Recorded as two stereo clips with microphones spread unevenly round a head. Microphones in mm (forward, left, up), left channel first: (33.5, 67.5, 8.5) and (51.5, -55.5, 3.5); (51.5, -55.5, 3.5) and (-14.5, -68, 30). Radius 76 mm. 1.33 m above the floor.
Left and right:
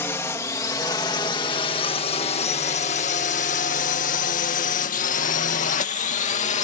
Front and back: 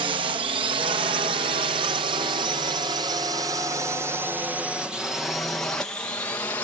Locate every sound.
0.0 s a drone: 175° left; by 6.6 s 75° left